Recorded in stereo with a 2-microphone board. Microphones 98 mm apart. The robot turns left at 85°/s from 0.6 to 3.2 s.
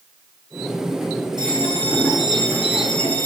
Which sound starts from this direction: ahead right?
A bell, at 1.4 s.